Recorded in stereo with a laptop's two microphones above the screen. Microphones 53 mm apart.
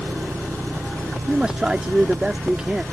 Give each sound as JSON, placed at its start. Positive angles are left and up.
{"t": 0.0, "sound": "an engine running", "side_deg": -85}
{"t": 1.3, "sound": "a man speaking", "side_deg": -15}